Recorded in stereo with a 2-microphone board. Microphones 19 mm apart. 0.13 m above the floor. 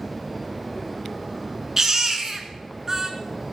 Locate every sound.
1.8 s a baby crying: 25° right (ahead or behind), 0.9 m